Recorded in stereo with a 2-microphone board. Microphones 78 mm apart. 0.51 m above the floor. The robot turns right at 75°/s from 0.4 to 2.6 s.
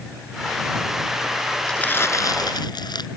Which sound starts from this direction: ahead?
Crumpling, at 1.7 s.